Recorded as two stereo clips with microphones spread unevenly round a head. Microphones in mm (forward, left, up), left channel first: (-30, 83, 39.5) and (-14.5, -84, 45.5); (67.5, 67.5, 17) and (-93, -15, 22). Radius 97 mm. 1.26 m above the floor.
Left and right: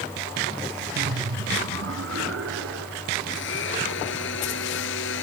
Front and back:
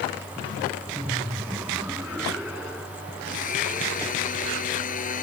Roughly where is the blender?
Left.